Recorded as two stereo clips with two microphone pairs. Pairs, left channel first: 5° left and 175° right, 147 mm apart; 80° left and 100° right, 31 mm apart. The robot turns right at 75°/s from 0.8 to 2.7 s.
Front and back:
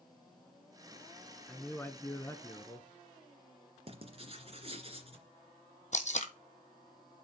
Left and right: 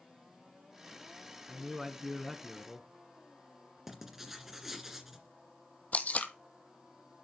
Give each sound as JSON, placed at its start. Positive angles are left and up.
{"t": 1.5, "sound": "a man speaking", "azimuth_deg": -65, "distance_m": 1.3}
{"t": 3.9, "sound": "writing", "azimuth_deg": -175, "distance_m": 2.0}
{"t": 5.9, "sound": "tape being pulled", "azimuth_deg": 40, "distance_m": 1.3}